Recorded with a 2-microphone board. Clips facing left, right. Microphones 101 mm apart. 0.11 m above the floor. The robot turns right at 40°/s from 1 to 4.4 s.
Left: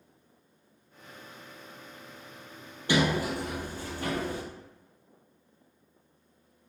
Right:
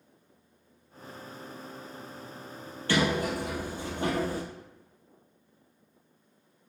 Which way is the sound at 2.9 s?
165° left.